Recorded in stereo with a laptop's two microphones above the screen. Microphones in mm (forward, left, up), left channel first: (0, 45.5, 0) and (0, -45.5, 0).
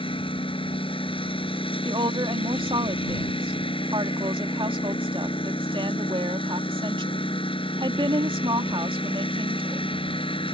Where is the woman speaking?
75° right (ahead or behind).